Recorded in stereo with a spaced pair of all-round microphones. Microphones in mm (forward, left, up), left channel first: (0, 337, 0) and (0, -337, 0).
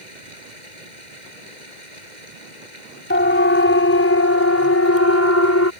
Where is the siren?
15° left (ahead or behind); by 5.7 s 20° left (ahead or behind).